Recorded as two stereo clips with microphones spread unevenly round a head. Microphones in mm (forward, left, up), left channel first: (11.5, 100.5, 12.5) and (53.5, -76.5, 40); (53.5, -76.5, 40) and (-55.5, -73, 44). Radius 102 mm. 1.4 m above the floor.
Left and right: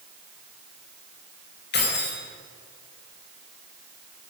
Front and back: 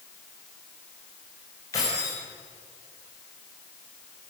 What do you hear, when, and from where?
1.7 s keys jangling: 70° left, 5 m